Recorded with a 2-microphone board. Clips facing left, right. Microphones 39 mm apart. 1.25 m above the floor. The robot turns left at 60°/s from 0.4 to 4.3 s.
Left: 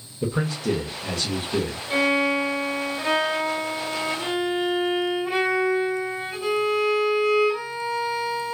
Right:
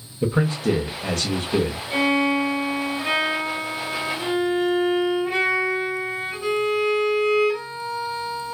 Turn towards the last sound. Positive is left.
turn(degrees=0)